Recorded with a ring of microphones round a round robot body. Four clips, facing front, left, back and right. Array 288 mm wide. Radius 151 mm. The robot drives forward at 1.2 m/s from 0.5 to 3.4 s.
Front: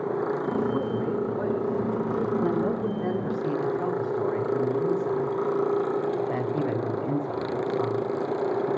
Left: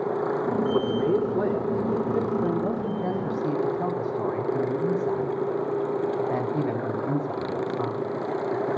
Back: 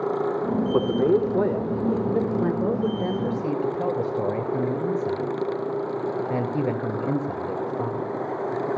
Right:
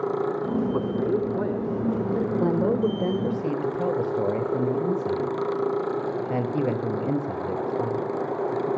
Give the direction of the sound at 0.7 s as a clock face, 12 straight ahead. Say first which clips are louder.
Left 2 dB, back 7 dB; 6 o'clock.